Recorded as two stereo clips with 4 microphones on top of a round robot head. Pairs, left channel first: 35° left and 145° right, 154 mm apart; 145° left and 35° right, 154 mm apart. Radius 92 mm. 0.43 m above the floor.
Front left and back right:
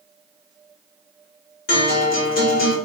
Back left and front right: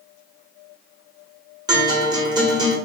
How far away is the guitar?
About 0.9 m.